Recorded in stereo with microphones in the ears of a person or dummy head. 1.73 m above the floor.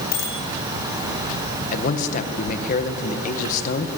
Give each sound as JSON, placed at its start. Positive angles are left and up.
{"t": 0.1, "sound": "a bicycle bell", "side_deg": 80, "distance_m": 7.5}
{"t": 1.7, "sound": "a man speaking", "side_deg": 50, "distance_m": 1.9}